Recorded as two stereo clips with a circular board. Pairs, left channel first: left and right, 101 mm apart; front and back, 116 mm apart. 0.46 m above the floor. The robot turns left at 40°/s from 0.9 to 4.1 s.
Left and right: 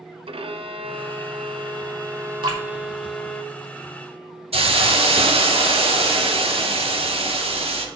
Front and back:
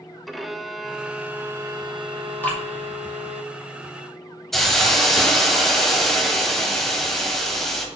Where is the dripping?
70° right, 2 m; by 2.6 s 75° right, 2 m.